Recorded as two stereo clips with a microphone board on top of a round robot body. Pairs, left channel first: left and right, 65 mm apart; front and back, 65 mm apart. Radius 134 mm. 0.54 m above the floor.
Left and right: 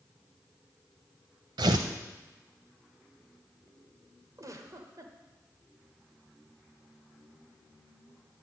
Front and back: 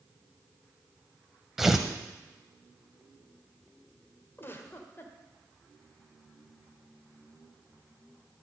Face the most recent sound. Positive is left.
turn(degrees=-55)